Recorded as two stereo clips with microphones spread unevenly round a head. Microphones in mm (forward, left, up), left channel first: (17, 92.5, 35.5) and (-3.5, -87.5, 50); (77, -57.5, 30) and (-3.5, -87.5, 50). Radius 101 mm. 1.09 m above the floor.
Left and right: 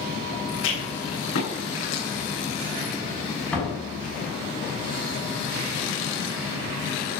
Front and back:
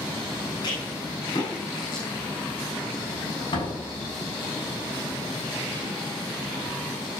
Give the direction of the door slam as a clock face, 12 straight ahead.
12 o'clock.